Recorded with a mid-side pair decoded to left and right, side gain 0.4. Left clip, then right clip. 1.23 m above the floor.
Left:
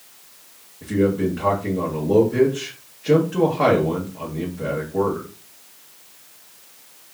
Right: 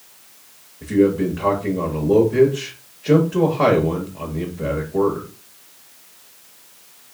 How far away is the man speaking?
About 1.1 m.